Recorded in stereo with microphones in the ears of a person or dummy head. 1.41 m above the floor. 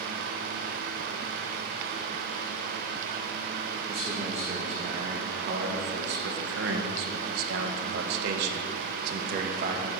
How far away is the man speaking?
About 2.5 m.